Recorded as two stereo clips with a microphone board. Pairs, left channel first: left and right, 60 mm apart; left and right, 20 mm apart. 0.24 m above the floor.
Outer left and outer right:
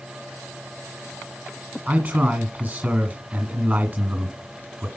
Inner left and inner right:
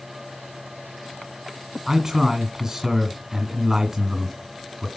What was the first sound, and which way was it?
A man speaking, 30° right (ahead or behind).